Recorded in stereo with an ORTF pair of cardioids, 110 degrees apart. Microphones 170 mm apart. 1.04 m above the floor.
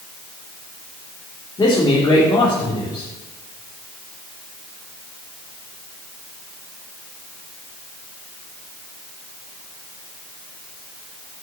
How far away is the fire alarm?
No fire alarm in this recording.